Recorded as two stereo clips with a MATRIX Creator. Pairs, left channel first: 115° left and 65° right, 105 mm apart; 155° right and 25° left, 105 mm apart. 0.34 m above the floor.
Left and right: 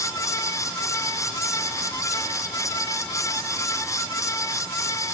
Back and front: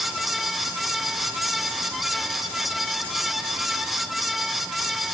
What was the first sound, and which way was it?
Only background noise.